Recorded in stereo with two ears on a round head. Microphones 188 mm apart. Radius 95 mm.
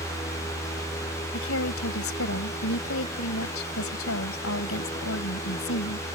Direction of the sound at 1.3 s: 70° left (ahead or behind).